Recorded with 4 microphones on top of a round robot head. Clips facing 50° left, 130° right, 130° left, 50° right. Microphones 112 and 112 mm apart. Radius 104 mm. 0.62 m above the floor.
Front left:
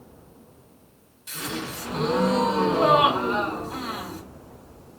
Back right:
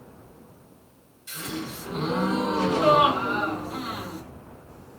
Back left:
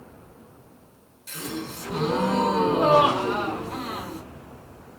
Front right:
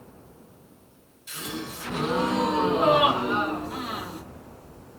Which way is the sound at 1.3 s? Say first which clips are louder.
Front left 1 dB, back left 2 dB; 90° left.